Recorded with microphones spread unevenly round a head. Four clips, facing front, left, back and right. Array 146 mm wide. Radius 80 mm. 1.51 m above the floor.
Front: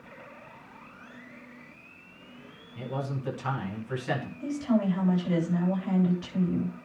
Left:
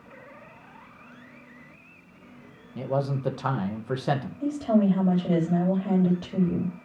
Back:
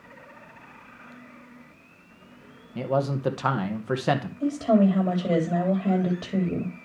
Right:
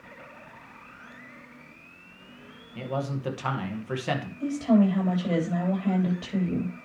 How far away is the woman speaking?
About 8.5 m.